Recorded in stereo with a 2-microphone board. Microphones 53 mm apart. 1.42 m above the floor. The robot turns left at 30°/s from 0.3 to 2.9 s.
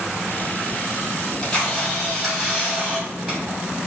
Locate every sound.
1.2 s a camera shutter: 30° left, 1.8 m; by 3.6 s 20° right, 1.8 m